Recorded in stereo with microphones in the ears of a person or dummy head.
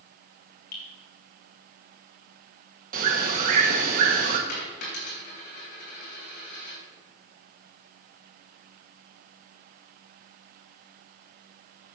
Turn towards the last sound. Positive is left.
turn(degrees=55)  # may be behind; listen again after turning